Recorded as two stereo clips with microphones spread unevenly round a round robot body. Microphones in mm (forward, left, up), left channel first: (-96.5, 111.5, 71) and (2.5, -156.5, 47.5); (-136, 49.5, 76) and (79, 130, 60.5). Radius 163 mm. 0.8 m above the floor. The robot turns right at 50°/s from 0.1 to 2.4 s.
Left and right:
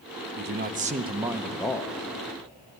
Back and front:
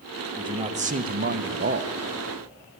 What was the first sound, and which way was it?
A man speaking, 40° right.